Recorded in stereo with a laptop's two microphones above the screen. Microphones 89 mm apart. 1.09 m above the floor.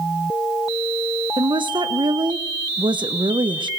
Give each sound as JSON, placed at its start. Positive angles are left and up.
{"t": 1.4, "sound": "a woman speaking", "side_deg": -60, "distance_m": 0.5}